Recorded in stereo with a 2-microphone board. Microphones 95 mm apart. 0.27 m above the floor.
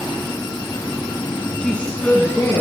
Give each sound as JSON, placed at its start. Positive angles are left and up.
{"t": 1.6, "sound": "a woman speaking", "side_deg": 10, "distance_m": 2.5}